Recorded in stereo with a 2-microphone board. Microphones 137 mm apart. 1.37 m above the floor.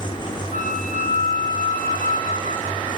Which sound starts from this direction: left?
A flute, at 0.5 s.